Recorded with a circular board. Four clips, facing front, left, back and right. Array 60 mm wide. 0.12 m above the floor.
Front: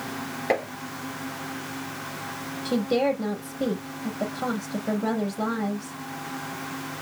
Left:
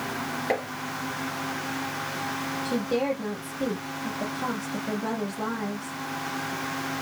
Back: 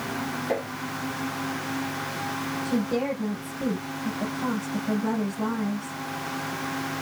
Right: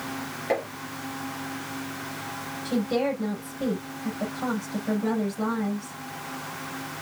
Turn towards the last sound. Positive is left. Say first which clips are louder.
# right 2 dB, front 4 dB
turn(degrees=0)